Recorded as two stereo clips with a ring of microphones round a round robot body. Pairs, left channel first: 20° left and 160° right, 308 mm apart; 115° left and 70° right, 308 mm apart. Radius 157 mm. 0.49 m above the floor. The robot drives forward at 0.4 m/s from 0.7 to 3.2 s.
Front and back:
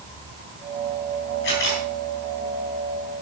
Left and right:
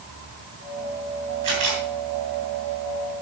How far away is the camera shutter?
About 6.5 m.